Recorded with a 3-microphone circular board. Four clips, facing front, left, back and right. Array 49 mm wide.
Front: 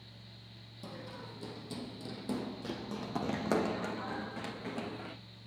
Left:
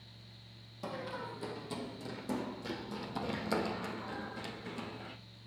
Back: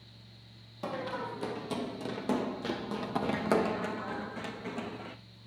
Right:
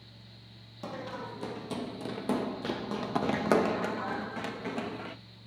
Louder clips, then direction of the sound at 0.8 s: Right 2 dB, back 11 dB; 175° right.